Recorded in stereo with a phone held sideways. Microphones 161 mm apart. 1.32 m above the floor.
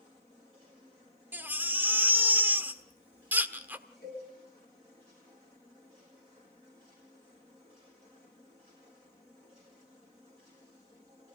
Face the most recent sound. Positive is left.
turn(degrees=75)  # may be behind; listen again after turning